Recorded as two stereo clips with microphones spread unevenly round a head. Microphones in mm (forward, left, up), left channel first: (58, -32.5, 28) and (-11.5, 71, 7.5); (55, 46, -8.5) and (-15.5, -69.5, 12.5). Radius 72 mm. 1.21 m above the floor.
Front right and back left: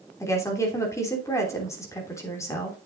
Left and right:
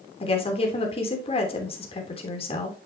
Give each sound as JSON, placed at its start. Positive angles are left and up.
{"t": 0.2, "sound": "a woman speaking", "azimuth_deg": 10, "distance_m": 3.0}